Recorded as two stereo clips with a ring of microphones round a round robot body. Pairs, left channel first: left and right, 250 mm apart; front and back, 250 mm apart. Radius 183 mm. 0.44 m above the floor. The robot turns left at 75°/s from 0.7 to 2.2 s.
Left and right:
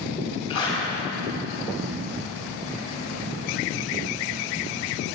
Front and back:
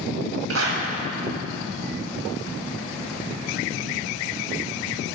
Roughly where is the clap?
Behind.